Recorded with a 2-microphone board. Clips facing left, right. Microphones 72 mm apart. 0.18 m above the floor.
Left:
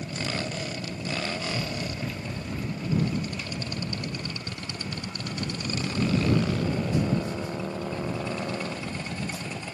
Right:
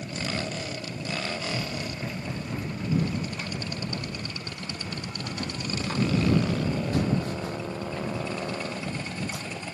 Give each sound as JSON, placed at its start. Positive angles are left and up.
{"t": 1.5, "sound": "running footsteps", "side_deg": -5}